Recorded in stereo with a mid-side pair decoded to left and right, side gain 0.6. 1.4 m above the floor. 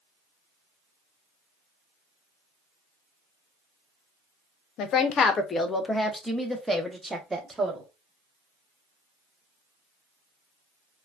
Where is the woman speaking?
60° left, 0.8 m; by 7.9 s 20° right, 1.6 m.